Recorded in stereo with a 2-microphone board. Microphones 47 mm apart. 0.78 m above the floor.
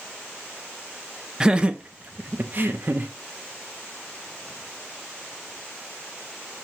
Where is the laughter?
15° right (ahead or behind), 0.6 m; by 3.1 s 40° right (ahead or behind), 0.8 m.